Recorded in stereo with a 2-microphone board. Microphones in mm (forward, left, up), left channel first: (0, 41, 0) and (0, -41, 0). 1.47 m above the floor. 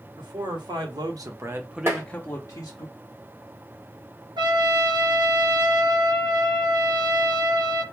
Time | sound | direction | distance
0.2 | a man speaking | 70° right (ahead or behind) | 1.2 m
1.9 | tapping | 35° right (ahead or behind) | 1.2 m
4.4 | a trumpet | 65° right (ahead or behind) | 0.7 m